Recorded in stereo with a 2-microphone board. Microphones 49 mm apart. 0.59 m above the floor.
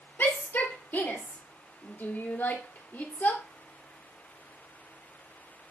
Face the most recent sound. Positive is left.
turn(degrees=40)  # may be behind; listen again after turning